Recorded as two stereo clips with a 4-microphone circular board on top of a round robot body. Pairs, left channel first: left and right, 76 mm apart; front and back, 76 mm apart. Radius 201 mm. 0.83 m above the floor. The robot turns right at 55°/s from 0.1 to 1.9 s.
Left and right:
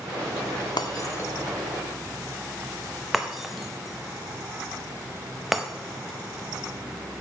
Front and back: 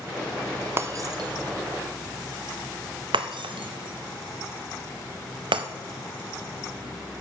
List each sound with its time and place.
0.8 s breaking glass: 120° left, 0.5 m; by 5.7 s straight behind, 0.5 m